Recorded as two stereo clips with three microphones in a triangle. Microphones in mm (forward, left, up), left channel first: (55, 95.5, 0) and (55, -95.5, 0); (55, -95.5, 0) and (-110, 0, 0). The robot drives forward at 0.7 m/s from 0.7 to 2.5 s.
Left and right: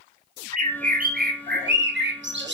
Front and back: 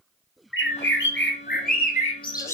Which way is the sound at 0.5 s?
40° right.